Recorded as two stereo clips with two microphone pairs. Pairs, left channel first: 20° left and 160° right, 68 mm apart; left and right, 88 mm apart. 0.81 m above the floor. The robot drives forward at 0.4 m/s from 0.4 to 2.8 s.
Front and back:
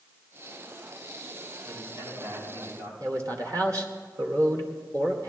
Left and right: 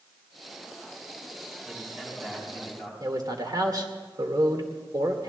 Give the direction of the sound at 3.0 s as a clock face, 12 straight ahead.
4 o'clock.